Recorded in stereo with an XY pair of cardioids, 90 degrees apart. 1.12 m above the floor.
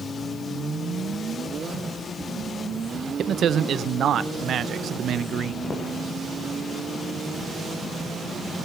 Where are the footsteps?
25° left, 5.5 m.